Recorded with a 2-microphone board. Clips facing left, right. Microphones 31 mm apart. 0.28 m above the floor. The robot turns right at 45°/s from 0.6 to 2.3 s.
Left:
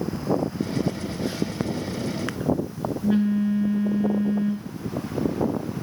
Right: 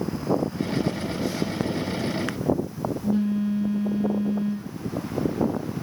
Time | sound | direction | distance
0.8 | a phone buzzing | 30° left | 4 m